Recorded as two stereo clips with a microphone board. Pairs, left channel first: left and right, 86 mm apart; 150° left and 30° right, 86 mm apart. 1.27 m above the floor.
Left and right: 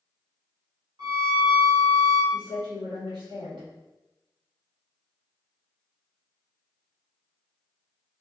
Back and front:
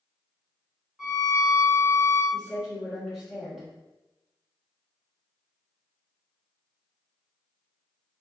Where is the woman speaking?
115° right, 1.8 m.